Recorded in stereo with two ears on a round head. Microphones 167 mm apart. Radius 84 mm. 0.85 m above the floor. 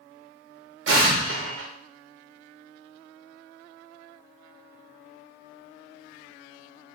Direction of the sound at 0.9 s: 65° right (ahead or behind).